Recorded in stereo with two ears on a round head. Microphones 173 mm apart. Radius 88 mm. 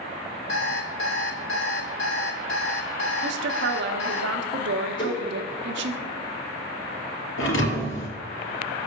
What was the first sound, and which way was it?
An alarm clock, 65° left (ahead or behind).